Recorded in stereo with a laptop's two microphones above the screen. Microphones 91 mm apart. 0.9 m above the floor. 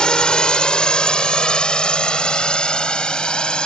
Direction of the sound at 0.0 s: 10° left (ahead or behind).